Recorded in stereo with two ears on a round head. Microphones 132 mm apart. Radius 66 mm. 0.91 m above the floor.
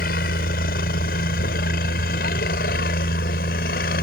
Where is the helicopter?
65° left (ahead or behind); by 4.0 s 70° left (ahead or behind).